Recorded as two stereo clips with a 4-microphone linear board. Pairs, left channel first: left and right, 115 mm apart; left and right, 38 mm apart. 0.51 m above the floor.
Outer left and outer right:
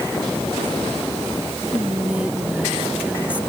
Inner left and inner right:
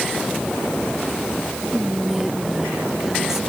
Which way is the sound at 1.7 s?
10° right (ahead or behind).